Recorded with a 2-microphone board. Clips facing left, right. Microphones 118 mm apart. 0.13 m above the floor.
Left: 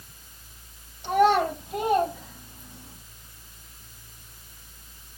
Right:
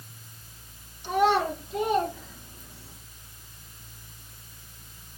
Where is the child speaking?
65° left (ahead or behind), 2.5 m; by 3.0 s 70° left (ahead or behind), 3.5 m.